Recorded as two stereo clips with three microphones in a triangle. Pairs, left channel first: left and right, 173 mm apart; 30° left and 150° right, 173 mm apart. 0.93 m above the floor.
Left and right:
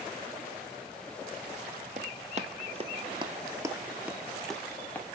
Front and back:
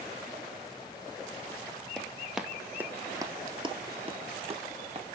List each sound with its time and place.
2.0 s running footsteps: 55° right, 1.4 m; by 5.1 s 170° left, 1.5 m